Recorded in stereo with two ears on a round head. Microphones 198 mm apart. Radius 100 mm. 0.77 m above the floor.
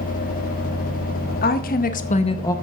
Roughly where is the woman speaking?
Left.